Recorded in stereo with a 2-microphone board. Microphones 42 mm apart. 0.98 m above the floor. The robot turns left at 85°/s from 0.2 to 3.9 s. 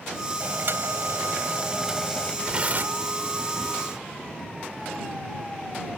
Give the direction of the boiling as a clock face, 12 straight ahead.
1 o'clock.